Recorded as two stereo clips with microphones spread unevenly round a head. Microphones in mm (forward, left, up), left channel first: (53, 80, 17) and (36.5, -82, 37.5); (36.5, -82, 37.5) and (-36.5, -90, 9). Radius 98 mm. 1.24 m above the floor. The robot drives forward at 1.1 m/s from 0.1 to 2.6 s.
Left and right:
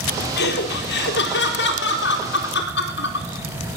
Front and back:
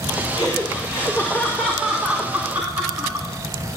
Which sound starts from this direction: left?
Laughter, at 0.4 s.